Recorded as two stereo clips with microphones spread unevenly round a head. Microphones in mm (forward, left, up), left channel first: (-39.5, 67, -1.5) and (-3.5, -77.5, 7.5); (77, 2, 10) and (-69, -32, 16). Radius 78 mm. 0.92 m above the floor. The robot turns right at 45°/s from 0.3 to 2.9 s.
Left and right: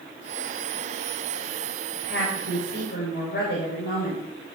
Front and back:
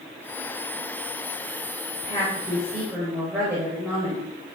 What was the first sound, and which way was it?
A woman speaking, 75° left.